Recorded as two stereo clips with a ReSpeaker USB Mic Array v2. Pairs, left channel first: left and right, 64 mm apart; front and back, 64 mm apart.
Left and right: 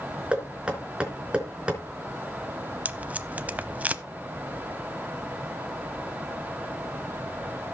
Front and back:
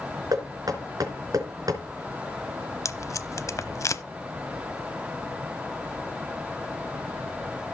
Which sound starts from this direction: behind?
Knocking, at 0.3 s.